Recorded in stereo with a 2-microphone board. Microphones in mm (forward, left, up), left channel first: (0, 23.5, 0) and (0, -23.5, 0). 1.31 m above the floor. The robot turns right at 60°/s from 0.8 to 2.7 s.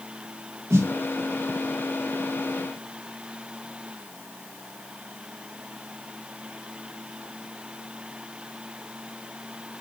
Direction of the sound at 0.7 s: 80° right.